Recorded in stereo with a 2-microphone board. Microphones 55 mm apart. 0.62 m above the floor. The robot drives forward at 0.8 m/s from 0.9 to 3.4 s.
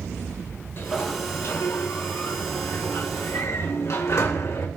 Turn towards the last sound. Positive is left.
turn(degrees=60)  # may be behind; listen again after turning